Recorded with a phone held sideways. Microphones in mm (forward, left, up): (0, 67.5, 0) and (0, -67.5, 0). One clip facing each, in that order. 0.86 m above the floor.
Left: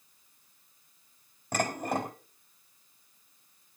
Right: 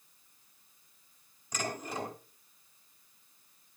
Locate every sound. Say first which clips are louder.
1.5 s dishes clattering: left 7 dB; 60° left (ahead or behind), 3.5 m